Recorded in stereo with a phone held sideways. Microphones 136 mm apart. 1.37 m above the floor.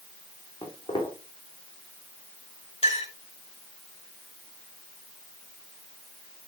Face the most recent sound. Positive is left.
turn(degrees=45)  # may be behind; listen again after turning